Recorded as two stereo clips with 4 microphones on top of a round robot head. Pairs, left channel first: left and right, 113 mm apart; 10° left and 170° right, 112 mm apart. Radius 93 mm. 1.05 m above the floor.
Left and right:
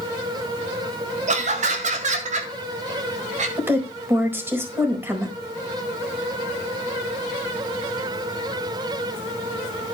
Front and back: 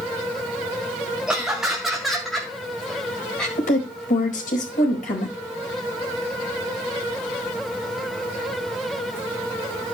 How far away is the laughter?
About 2.5 m.